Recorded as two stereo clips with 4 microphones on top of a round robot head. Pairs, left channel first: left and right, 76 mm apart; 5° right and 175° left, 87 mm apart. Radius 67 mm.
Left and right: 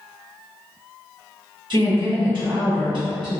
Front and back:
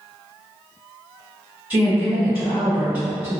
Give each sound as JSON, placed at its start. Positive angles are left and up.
{"t": 1.7, "sound": "a woman speaking", "azimuth_deg": -105, "distance_m": 1.6}